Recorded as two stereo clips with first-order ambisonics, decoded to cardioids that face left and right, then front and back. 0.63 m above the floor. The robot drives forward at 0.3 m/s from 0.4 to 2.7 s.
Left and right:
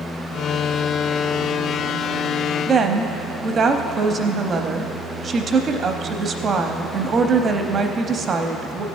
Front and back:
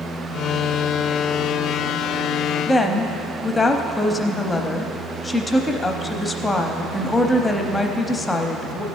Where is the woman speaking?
75° right, 0.6 m.